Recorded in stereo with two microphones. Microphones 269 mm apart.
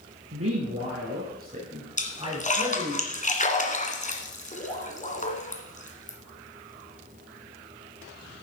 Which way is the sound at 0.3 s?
60° right (ahead or behind).